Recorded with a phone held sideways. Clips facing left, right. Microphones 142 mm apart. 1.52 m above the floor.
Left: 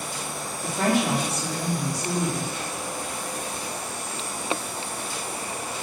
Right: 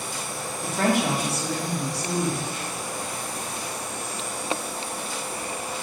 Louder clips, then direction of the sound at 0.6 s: Even; 80° right.